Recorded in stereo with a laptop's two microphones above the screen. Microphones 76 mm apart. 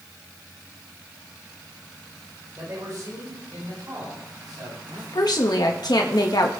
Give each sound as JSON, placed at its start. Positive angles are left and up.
{"t": 2.6, "sound": "a man speaking", "side_deg": -40, "distance_m": 5.5}
{"t": 5.1, "sound": "a woman speaking", "side_deg": 65, "distance_m": 1.6}